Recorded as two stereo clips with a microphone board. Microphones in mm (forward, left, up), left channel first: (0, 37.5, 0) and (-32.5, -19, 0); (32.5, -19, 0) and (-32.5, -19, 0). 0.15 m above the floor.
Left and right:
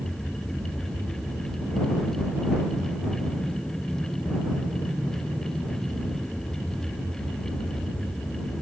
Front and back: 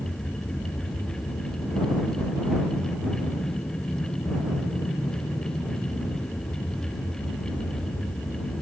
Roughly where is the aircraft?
Ahead right.